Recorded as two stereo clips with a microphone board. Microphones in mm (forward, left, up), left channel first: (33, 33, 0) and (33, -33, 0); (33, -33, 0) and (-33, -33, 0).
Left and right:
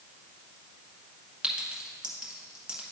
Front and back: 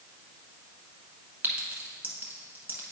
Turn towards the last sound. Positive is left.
turn(degrees=-155)